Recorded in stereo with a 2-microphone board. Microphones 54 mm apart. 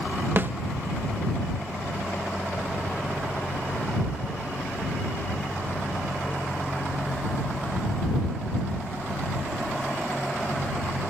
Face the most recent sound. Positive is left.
turn(degrees=-40)  # may be behind; listen again after turning